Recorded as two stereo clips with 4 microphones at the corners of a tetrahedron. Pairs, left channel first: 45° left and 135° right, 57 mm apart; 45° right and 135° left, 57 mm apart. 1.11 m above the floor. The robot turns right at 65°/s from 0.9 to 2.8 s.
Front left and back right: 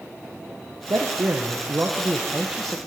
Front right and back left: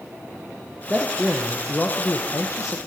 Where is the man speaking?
155° right, 0.8 m; by 2.8 s 35° right, 0.8 m.